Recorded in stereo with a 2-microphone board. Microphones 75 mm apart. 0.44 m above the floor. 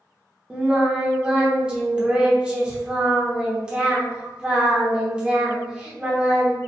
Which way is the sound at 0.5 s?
10° right (ahead or behind).